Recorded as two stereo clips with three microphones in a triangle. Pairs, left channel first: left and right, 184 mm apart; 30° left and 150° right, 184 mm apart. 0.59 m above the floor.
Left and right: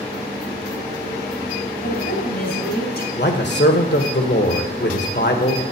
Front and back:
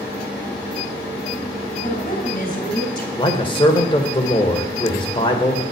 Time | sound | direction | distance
1.8 | a woman speaking | 70° left | 3.5 m
3.2 | a man speaking | 90° left | 1.6 m